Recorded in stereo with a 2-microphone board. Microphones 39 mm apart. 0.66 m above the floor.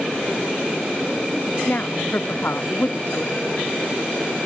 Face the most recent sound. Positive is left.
turn(degrees=50)  # may be behind; listen again after turning